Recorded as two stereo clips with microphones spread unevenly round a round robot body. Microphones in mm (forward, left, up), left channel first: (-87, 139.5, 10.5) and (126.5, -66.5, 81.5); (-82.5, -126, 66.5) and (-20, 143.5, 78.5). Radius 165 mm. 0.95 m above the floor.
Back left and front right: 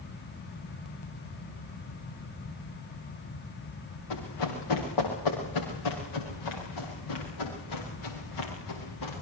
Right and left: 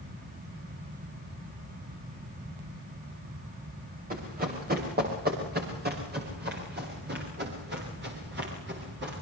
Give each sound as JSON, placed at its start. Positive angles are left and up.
{"t": 4.1, "sound": "running footsteps", "azimuth_deg": 135, "distance_m": 10.0}